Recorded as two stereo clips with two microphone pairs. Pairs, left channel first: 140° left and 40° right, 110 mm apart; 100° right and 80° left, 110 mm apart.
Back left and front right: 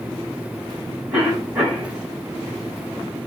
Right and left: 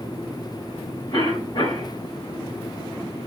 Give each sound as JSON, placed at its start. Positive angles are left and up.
{"t": 1.1, "sound": "a cough", "azimuth_deg": -115, "distance_m": 3.0}